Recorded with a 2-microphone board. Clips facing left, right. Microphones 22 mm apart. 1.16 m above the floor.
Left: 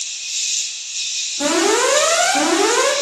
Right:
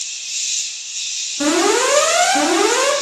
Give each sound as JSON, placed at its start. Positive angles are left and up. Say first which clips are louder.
{"t": 0.0, "sound": "an insect", "louder": "left 1 dB", "side_deg": 50, "distance_m": 0.9}
{"t": 1.4, "sound": "an alarm", "louder": "right 1 dB", "side_deg": -20, "distance_m": 1.0}